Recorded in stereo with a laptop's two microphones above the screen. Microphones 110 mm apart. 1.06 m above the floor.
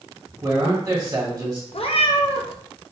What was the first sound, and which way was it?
A man speaking, 35° right (ahead or behind).